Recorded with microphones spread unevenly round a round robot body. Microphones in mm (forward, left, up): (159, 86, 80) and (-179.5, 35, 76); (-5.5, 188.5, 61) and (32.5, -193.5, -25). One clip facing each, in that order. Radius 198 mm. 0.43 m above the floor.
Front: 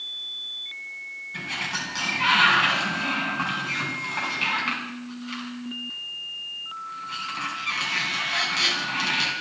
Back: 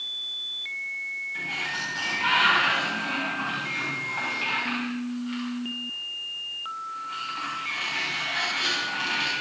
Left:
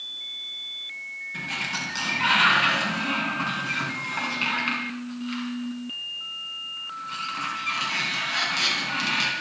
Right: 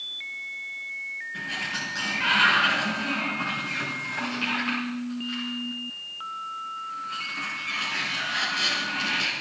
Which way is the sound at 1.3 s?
30° left.